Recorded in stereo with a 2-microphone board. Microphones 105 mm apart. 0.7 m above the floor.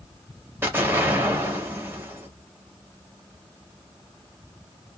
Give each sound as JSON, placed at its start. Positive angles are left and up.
{"t": 0.6, "sound": "an explosion", "side_deg": -20, "distance_m": 0.9}